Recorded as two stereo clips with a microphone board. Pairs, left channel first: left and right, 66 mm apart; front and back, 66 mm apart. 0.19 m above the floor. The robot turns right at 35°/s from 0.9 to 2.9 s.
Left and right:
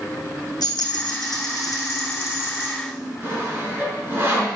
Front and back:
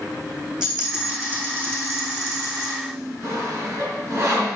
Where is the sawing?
140° right, 2.5 m.